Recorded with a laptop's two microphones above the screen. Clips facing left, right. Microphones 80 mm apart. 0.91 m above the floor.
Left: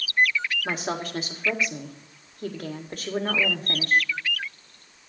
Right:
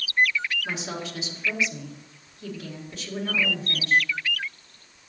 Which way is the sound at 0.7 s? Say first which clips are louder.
Left 3 dB; 50° left (ahead or behind).